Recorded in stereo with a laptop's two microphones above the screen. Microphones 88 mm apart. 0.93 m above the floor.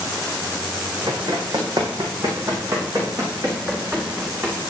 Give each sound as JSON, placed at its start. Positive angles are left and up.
{"t": 1.1, "sound": "running footsteps", "side_deg": -60, "distance_m": 3.0}